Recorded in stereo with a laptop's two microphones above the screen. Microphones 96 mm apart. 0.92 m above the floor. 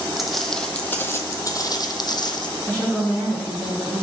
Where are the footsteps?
Centre (ahead or behind), 1.4 m; by 2.5 s 50° left (ahead or behind), 1.6 m.